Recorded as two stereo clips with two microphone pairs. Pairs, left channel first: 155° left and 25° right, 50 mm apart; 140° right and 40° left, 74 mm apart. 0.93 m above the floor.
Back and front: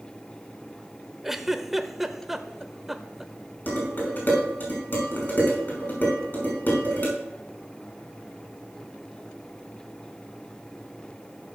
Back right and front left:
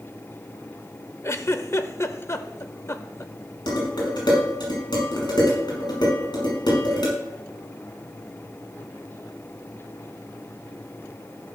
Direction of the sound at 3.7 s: 155° right.